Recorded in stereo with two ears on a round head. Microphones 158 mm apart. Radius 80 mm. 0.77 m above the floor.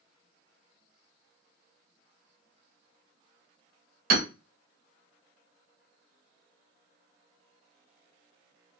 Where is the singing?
I don't hear singing.